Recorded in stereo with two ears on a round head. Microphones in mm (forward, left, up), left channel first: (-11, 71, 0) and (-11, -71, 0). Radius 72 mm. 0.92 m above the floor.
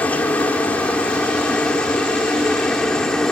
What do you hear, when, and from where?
0.0 s a helicopter: 10° left (ahead or behind); by 3.3 s 5° left (ahead or behind)